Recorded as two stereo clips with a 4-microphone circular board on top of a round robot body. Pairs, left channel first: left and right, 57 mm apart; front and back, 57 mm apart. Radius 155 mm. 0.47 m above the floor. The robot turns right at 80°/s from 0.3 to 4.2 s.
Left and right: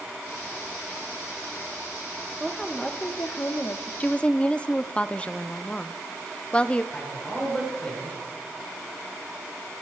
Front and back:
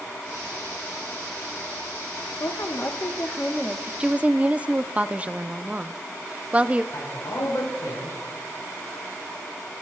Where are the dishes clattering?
No dishes clattering in this recording.